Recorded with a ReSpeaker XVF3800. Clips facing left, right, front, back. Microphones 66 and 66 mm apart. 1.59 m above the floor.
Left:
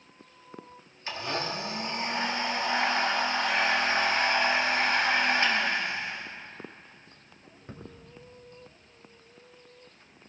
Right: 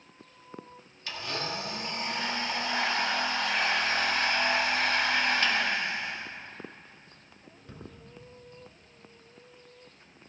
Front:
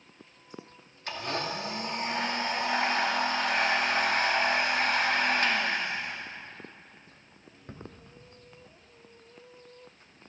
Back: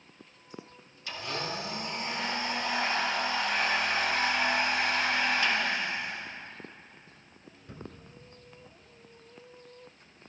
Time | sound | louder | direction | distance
1.1 | a blender | left 3 dB, front 3 dB | 35° left | 1.9 m